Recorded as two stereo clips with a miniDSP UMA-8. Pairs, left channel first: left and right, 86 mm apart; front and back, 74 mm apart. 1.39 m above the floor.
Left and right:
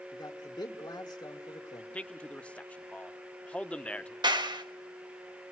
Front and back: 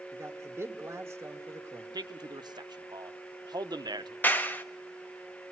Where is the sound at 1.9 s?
165° left, 1.1 m.